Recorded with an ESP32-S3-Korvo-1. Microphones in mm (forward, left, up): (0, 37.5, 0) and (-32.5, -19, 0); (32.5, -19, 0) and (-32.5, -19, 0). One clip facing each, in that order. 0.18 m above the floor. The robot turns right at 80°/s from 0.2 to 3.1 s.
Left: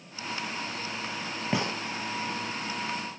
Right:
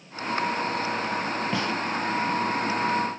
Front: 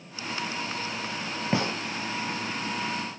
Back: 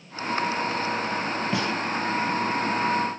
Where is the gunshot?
5° left, 0.6 m; by 1.7 s 25° left, 0.6 m.